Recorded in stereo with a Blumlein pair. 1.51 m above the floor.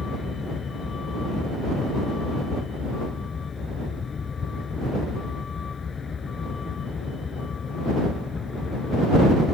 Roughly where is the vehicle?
Ahead.